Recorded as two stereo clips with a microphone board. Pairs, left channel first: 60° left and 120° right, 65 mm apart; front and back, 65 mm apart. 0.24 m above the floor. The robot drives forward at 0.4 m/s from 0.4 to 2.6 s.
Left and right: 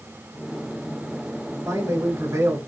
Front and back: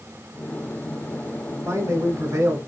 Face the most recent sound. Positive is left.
turn(degrees=-150)